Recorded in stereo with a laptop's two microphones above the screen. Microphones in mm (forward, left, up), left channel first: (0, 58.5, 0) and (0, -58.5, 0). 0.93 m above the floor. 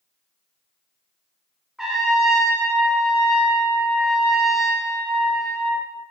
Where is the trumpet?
5° right (ahead or behind), 1.0 m.